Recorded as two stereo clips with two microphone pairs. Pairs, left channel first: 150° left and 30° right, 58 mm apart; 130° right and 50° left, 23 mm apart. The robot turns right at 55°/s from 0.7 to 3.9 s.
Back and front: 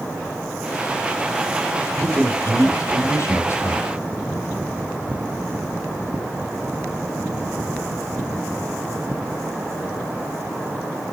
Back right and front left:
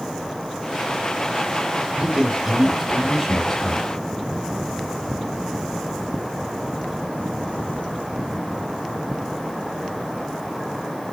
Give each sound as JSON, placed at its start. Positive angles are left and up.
{"t": 2.0, "sound": "a man speaking", "azimuth_deg": 90, "distance_m": 2.5}